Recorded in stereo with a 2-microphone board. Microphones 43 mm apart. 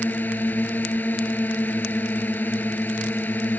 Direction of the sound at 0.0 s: 45° left (ahead or behind).